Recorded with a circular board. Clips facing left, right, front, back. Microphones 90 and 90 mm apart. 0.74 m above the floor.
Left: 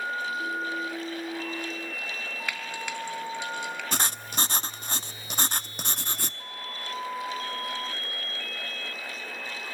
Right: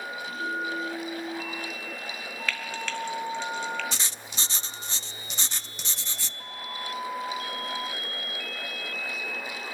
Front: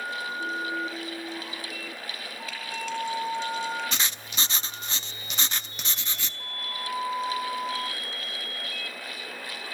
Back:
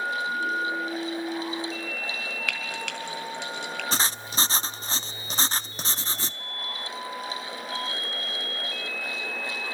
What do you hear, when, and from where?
2.5 s frying: 165° left, 3.5 m
3.9 s writing: 125° left, 0.6 m